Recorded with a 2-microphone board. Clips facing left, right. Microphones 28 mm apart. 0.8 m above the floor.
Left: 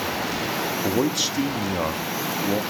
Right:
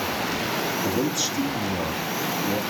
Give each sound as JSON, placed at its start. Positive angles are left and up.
{"t": 0.8, "sound": "a man speaking", "side_deg": 50, "distance_m": 0.8}